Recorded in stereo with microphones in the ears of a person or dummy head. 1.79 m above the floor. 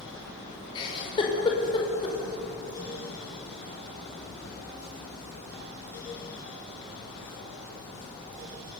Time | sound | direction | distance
0.8 | a giggle | 25° left (ahead or behind) | 5.5 m